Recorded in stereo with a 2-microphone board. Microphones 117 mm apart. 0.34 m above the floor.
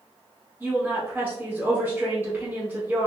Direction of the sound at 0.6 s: 20° right (ahead or behind).